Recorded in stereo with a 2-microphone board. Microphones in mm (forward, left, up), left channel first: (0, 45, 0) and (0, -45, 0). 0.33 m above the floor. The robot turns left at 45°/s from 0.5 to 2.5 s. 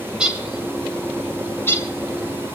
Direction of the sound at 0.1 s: 10° right (ahead or behind).